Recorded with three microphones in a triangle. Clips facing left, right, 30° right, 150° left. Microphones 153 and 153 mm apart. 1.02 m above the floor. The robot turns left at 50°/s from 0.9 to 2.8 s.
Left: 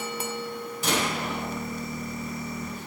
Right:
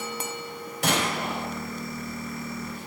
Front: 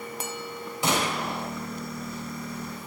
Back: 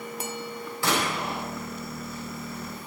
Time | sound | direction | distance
0.8 | a gunshot | 100° right | 4.5 m